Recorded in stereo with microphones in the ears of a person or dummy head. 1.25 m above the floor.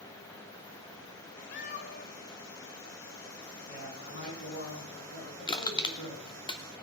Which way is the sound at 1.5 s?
50° left (ahead or behind).